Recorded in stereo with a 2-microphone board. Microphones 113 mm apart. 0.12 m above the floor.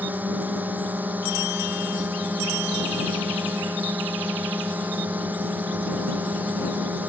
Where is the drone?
15° right (ahead or behind).